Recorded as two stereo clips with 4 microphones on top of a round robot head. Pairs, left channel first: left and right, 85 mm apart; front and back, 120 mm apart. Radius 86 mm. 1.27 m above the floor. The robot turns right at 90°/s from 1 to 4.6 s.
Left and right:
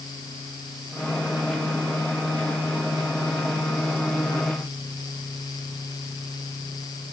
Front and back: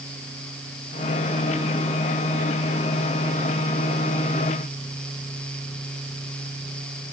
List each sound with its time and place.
Only background noise.